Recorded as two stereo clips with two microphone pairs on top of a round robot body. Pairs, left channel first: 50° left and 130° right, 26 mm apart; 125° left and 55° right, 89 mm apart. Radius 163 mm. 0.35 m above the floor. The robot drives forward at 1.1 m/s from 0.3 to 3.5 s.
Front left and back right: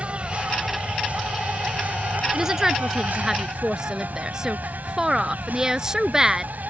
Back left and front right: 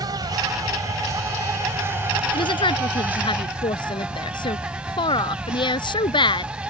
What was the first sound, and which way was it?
An insect, 85° right.